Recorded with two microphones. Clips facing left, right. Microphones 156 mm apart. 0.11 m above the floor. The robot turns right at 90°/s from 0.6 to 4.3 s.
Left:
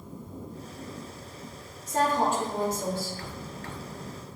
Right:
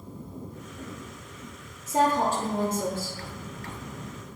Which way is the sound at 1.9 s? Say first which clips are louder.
Right 2 dB; 175° right.